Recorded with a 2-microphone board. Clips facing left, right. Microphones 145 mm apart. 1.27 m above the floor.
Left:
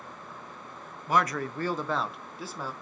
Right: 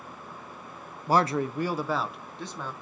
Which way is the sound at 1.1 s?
35° right (ahead or behind).